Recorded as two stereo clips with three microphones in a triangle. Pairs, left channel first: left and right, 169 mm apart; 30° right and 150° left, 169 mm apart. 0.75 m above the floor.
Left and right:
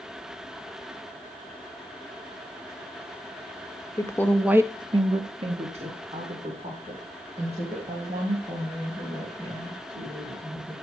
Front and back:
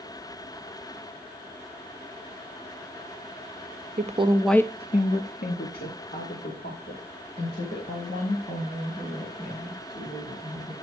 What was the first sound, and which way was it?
A woman speaking, 150° left.